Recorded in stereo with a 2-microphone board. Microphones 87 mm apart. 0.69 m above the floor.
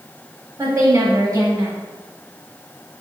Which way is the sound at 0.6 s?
40° right (ahead or behind).